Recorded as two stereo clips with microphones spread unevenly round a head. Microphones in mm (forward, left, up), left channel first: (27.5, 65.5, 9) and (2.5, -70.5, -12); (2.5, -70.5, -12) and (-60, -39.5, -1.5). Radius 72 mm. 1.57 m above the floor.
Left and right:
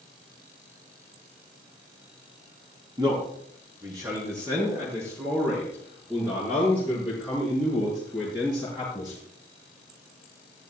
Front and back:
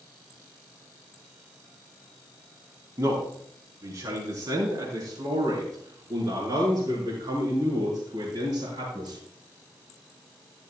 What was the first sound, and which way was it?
A man speaking, 160° right.